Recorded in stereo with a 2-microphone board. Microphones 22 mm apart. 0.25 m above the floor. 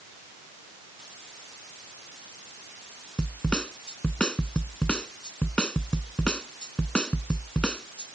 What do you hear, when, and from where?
3.2 s a snare drum: 50° left (ahead or behind)